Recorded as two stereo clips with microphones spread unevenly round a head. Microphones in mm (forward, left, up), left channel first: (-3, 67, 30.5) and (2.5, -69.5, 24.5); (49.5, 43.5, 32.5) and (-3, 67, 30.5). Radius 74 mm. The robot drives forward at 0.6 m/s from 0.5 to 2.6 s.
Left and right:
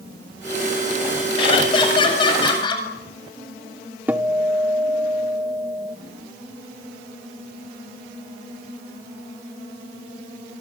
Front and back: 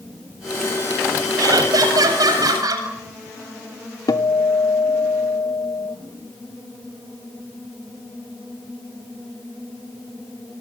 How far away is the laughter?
About 7.5 m.